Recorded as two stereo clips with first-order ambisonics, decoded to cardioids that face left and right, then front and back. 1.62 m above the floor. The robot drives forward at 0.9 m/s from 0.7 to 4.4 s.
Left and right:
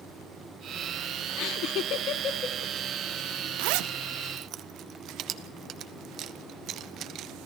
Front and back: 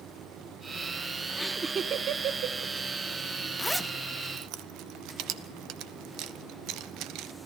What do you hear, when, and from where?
1.4 s laughter: 75° left, 0.6 m; by 2.7 s 155° left, 1.3 m
3.6 s a zipper: 75° right, 0.5 m; by 7.3 s 140° right, 0.8 m